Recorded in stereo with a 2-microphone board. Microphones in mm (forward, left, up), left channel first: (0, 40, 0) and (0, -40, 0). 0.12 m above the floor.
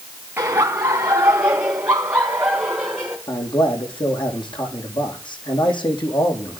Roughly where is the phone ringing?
I don't hear a phone ringing.